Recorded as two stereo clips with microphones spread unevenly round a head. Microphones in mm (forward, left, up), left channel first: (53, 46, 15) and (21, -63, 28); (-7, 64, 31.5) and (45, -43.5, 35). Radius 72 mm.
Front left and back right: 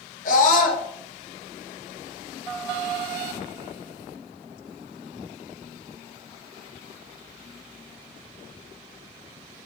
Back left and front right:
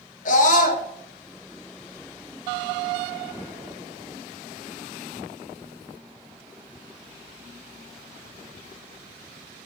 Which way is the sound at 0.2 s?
95° left.